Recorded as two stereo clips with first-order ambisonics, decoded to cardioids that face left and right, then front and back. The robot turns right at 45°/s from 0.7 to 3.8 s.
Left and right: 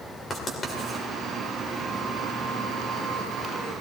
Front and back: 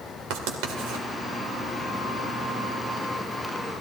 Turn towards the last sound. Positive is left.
turn(degrees=-60)